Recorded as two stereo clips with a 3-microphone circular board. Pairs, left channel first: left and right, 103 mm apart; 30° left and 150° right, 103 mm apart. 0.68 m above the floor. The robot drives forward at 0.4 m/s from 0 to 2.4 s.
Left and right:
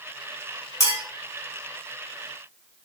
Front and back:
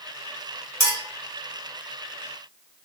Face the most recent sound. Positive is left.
turn(degrees=155)